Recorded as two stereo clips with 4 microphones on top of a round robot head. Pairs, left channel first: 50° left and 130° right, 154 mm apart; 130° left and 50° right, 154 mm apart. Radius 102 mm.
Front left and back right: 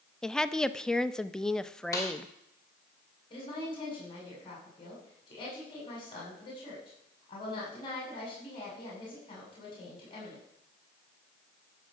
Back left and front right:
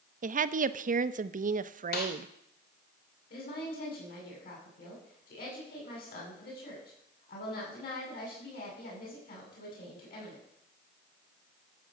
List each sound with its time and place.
0.2 s a woman speaking: 35° right, 0.7 m
1.9 s a snare drum: 120° left, 3 m
3.3 s a woman speaking: 105° left, 8 m